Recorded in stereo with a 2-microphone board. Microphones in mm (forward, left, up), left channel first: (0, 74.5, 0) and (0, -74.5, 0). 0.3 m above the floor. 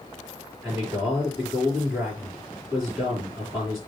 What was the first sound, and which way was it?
A man speaking, 5° right (ahead or behind).